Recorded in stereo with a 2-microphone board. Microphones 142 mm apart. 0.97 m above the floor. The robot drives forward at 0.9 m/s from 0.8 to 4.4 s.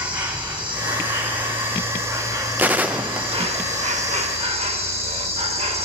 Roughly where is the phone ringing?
No phone ringing in this recording.